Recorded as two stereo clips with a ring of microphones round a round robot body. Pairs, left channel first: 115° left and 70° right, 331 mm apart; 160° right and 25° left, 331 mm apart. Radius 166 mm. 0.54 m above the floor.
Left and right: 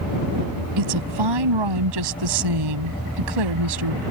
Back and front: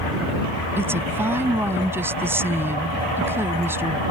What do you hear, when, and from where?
0.8 s a woman speaking: 60° right